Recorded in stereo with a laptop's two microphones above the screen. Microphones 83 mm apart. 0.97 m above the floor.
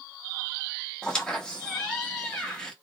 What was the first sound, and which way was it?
A squeak, 10° left (ahead or behind).